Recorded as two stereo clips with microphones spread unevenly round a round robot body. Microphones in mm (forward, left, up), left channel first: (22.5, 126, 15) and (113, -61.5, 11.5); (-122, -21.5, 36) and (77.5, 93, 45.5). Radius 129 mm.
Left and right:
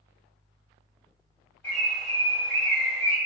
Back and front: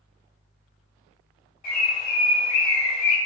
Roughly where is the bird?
Behind.